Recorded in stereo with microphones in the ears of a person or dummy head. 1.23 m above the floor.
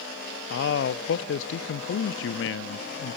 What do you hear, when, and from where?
0.5 s a man speaking: 55° left (ahead or behind), 0.6 m